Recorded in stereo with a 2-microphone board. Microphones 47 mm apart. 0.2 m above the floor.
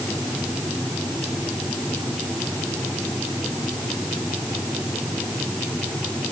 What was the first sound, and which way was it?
Only background noise.